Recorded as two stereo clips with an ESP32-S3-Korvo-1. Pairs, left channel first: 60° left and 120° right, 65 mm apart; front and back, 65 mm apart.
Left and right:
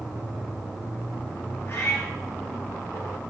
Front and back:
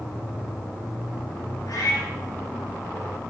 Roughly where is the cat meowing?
Ahead.